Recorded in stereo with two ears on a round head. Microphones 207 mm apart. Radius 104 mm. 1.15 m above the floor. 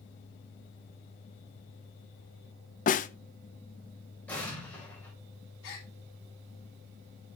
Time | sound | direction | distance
2.9 | a snare drum | 35° left (ahead or behind) | 0.7 m
4.3 | an explosion | 5° left (ahead or behind) | 4 m
5.6 | a gasp | 65° left (ahead or behind) | 4.5 m